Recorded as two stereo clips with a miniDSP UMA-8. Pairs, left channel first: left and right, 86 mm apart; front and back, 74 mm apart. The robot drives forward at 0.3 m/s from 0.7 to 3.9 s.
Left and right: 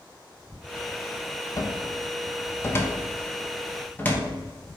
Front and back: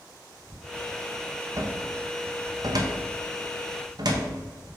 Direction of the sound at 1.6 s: 135° left.